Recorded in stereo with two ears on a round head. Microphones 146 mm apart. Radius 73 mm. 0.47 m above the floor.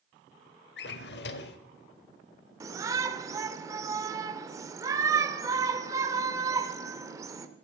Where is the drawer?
70° left (ahead or behind), 0.8 m.